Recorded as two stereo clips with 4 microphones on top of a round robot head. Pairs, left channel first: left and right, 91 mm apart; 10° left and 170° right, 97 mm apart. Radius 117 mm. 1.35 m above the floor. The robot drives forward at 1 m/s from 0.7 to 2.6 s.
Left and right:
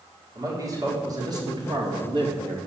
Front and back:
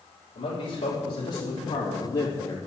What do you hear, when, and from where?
0.3 s a man speaking: 40° right, 3.5 m; by 2.6 s 70° right, 2.5 m